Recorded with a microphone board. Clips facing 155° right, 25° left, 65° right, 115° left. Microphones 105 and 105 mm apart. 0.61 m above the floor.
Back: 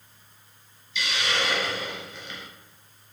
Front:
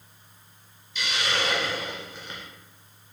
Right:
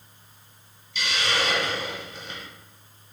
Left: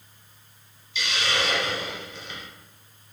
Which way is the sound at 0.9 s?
20° right.